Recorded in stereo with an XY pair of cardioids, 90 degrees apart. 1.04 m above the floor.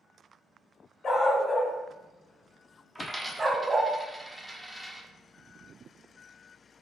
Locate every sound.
1.0 s a dog barking: 50° left, 1.7 m; by 3.9 s 50° right, 1.3 m
3.0 s a dropped coin: 10° right, 1.0 m